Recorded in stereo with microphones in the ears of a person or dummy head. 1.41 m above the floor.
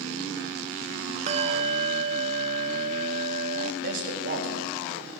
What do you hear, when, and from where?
1.3 s a bell: 35° right (ahead or behind), 0.5 m
3.8 s a man speaking: 60° right (ahead or behind), 2.5 m